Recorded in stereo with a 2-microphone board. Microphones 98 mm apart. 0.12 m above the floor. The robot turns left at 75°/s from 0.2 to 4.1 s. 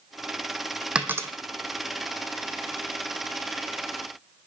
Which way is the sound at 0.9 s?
10° right (ahead or behind).